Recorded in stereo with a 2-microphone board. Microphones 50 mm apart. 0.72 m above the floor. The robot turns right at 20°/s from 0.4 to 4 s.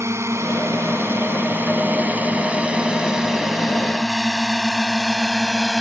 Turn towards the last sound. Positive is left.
turn(degrees=0)  # may be behind; listen again after turning